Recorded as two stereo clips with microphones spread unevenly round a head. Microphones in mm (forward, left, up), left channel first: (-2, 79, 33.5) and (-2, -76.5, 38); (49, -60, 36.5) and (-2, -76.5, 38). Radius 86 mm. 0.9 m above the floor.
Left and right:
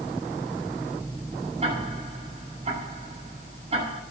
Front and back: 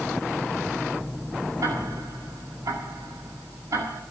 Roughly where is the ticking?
Behind right.